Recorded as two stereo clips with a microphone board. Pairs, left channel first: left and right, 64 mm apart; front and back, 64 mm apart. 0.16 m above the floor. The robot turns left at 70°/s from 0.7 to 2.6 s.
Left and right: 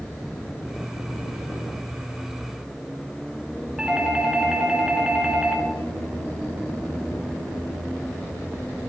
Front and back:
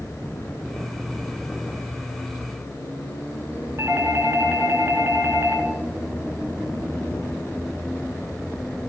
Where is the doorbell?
165° right, 2.5 m.